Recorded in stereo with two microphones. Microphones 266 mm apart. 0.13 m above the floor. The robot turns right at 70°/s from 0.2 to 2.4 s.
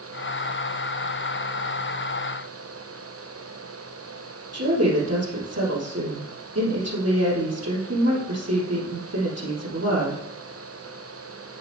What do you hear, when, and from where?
4.5 s a woman speaking: 70° right (ahead or behind), 3 m